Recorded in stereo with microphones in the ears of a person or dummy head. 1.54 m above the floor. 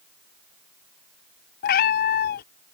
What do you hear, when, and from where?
1.6 s a cat meowing: 35° left (ahead or behind)